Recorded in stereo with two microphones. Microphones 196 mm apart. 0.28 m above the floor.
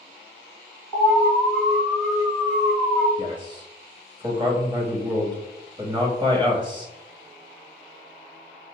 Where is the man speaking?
25° right (ahead or behind), 1.2 m.